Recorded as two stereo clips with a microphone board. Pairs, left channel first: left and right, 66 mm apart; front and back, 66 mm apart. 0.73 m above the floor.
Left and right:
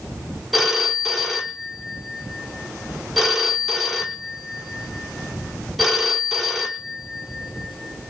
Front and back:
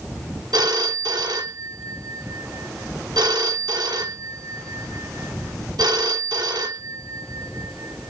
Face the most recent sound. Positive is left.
turn(degrees=-175)